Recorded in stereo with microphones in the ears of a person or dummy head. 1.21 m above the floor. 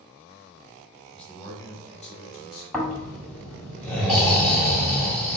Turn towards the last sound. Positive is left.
turn(degrees=5)  # may be behind; listen again after turning